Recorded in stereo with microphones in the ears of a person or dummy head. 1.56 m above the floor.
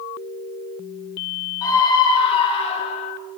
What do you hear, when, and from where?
1.6 s a scream: 20° left (ahead or behind), 3.5 m; by 3.1 s 40° left (ahead or behind), 5.5 m